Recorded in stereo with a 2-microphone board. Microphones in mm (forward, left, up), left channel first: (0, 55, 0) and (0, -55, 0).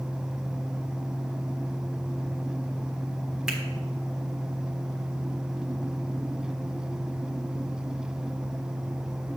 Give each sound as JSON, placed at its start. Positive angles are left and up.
{"t": 3.5, "sound": "a finger snap", "side_deg": -5, "distance_m": 1.2}